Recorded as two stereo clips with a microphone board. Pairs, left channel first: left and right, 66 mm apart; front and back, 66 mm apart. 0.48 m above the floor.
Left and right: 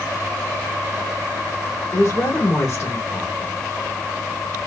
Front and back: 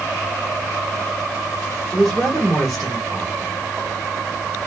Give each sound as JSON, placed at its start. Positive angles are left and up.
{"t": 1.9, "sound": "a woman speaking", "azimuth_deg": 85, "distance_m": 1.7}